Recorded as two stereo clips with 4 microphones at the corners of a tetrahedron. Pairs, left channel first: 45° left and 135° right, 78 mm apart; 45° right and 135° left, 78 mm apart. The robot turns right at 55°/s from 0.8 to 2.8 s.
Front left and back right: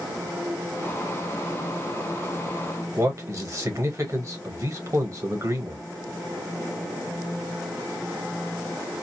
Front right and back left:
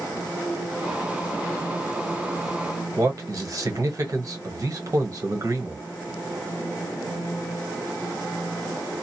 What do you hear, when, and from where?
3.0 s a man speaking: straight behind, 1.1 m